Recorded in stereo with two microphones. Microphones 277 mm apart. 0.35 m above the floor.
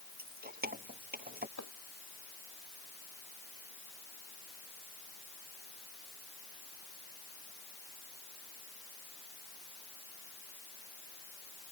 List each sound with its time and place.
0.2 s keys jangling: 35° right (ahead or behind)
1.6 s chopping: 85° left